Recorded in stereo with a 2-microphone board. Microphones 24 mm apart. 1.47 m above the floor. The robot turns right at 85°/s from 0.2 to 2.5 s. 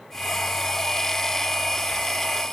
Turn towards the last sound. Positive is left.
No sound to turn to.